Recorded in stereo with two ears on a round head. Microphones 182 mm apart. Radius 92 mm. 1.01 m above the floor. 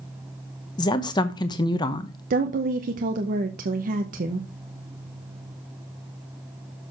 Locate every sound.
0.8 s a woman speaking: 20° left (ahead or behind), 0.8 m
2.3 s a woman speaking: 40° right (ahead or behind), 0.8 m